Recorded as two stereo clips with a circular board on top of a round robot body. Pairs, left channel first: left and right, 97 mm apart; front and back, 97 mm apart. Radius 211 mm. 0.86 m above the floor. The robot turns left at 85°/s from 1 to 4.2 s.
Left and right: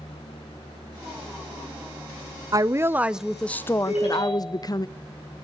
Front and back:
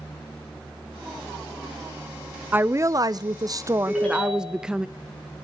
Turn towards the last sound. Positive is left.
turn(degrees=75)